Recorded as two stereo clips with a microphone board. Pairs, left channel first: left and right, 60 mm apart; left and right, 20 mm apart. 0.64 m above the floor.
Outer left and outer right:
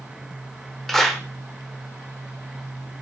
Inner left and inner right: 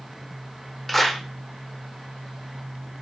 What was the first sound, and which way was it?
A clap, 5° left (ahead or behind).